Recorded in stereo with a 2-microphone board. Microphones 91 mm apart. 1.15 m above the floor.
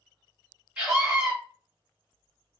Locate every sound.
0.8 s a scream: 10° right (ahead or behind), 2.5 m